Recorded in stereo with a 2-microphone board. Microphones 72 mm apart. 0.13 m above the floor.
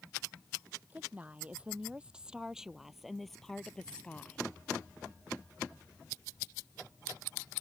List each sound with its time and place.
0.9 s a woman speaking: 20° right (ahead or behind); by 4.4 s 20° left (ahead or behind)